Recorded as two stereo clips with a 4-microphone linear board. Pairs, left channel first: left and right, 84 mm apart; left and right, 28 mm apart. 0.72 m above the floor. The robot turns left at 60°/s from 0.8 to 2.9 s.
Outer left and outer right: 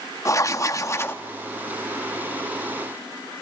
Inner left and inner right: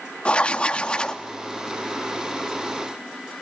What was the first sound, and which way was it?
Writing, 40° left (ahead or behind).